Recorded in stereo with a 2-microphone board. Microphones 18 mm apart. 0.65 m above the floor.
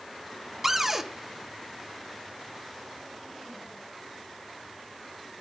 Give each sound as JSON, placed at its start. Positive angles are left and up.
{"t": 0.6, "sound": "a cupboard door", "side_deg": -20, "distance_m": 0.9}